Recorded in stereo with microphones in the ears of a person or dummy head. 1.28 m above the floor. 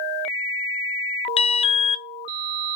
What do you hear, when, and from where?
1.4 s an alarm: 25° left (ahead or behind), 0.5 m